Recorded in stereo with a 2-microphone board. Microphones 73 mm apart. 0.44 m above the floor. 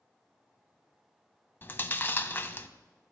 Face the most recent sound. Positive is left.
turn(degrees=30)  # may be behind; listen again after turning